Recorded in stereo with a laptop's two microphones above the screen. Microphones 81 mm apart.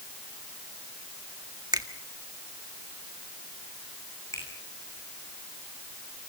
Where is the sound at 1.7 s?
60° right (ahead or behind), 1.7 m.